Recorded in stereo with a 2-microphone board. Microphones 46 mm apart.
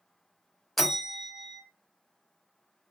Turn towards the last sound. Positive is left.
turn(degrees=0)  # may be behind; listen again after turning